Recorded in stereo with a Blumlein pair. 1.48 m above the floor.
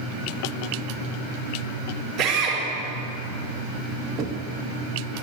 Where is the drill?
40° right, 5.5 m.